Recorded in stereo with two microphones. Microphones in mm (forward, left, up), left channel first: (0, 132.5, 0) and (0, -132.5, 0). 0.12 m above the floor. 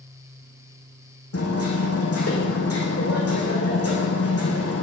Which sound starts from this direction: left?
Hammering, at 1.3 s.